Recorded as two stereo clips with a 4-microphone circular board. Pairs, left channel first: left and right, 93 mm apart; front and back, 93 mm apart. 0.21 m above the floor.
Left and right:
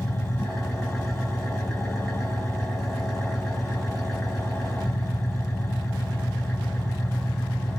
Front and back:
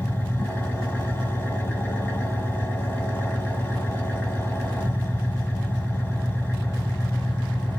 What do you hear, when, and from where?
0.0 s an engine running: 15° left, 1.3 m